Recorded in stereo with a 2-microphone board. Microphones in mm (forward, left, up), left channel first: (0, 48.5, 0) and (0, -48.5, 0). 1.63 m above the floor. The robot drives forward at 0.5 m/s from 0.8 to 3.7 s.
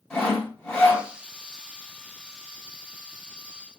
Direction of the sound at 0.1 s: 10° left (ahead or behind).